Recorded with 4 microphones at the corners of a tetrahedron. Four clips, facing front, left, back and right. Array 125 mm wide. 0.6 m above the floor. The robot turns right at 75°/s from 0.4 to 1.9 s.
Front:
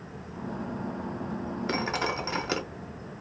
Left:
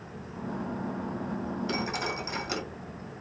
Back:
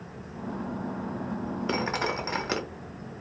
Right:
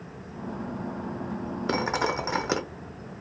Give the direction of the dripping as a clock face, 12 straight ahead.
3 o'clock.